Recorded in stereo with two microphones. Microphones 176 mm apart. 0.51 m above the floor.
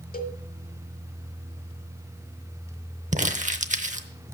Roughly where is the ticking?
I don't hear ticking.